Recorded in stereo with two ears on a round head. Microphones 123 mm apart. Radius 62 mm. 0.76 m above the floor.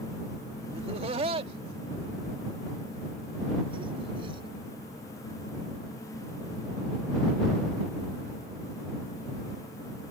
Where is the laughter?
45° right (ahead or behind); by 4.5 s 40° right (ahead or behind).